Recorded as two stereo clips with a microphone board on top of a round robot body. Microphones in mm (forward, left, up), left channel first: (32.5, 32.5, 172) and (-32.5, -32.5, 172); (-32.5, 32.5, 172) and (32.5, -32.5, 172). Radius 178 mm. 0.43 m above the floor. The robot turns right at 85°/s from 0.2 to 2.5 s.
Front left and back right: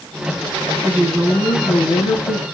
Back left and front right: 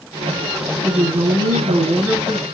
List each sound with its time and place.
0.8 s a woman speaking: 75° right, 8.5 m; by 2.4 s 60° left, 8.5 m